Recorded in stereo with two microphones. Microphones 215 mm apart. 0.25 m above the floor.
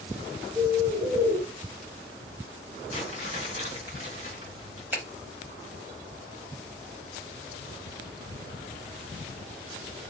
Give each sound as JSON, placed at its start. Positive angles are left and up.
{"t": 0.6, "sound": "a bird", "side_deg": -5, "distance_m": 1.0}
{"t": 2.9, "sound": "crumpling", "side_deg": -35, "distance_m": 1.9}
{"t": 4.9, "sound": "a finger snap", "side_deg": -10, "distance_m": 0.9}